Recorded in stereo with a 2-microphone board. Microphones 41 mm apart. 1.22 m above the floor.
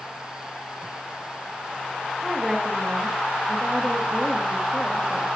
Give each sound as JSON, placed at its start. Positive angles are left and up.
{"t": 2.2, "sound": "a woman speaking", "side_deg": -20, "distance_m": 2.5}